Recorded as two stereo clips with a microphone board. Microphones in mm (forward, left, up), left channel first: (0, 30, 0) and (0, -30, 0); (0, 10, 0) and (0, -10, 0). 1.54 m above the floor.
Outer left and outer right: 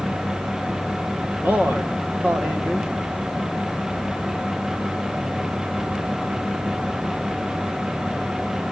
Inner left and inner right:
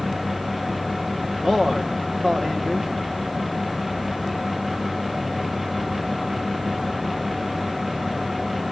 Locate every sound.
1.4 s a man speaking: 25° right (ahead or behind), 1.6 m